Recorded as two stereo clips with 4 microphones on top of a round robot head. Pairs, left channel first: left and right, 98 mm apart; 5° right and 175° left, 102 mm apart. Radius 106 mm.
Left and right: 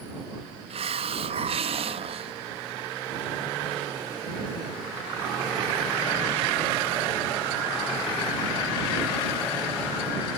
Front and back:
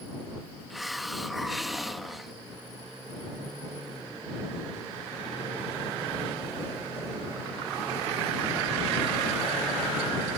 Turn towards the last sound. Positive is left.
turn(degrees=-95)